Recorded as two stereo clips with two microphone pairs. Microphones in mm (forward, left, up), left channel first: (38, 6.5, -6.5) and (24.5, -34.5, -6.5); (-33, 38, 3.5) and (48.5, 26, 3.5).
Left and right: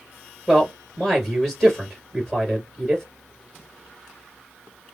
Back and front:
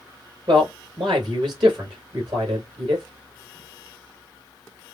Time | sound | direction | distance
0.5 | a man speaking | 25° right | 3 m